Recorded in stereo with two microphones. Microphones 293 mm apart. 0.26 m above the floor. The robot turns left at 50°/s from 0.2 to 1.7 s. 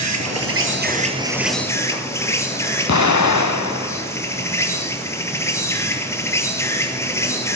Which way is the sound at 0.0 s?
115° right.